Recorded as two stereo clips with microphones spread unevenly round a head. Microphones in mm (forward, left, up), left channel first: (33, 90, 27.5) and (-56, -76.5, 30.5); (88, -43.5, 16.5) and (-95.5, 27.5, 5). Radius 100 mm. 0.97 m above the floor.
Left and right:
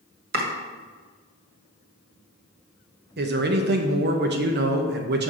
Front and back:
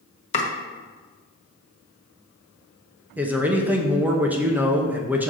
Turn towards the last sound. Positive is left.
turn(degrees=-125)